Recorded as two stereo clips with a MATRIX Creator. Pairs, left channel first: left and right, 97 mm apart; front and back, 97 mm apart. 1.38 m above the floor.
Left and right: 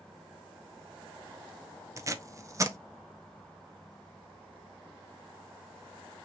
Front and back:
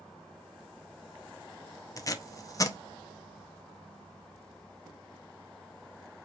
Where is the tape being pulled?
40° right, 0.6 m.